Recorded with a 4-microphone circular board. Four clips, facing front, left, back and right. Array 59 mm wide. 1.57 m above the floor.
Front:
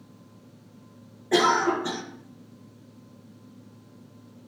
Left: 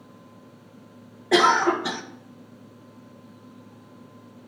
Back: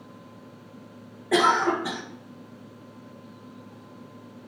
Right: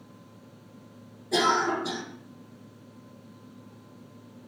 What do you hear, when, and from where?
1.3 s a cough: 105° left, 1.6 m